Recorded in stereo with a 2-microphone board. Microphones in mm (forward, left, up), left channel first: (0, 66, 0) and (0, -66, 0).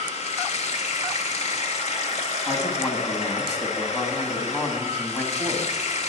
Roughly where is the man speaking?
Left.